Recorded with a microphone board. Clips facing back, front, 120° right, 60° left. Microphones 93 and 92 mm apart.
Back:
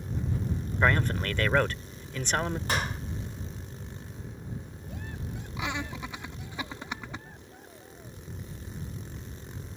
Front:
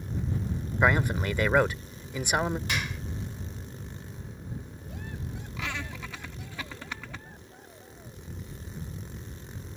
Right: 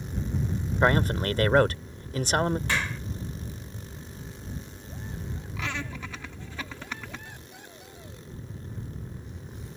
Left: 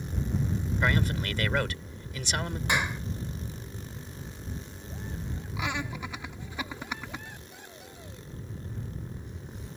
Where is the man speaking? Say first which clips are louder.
Front 2 dB, right 6 dB; 75° right.